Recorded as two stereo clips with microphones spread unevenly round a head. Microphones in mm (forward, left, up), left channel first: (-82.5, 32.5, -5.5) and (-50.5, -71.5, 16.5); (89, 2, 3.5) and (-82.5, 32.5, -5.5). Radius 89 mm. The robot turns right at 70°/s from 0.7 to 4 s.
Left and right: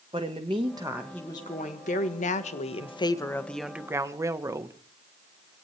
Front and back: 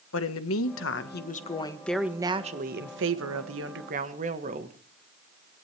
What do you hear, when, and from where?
0.1 s a woman speaking: 5° right, 1.5 m; by 4.8 s 135° right, 1.5 m